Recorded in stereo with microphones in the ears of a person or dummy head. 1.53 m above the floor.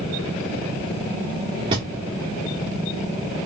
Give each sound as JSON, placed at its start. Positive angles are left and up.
{"t": 1.7, "sound": "a thud", "side_deg": -15, "distance_m": 0.8}